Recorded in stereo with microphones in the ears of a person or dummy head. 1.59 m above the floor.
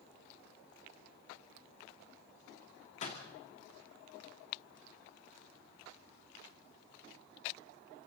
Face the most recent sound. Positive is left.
turn(degrees=45)  # may be behind; listen again after turning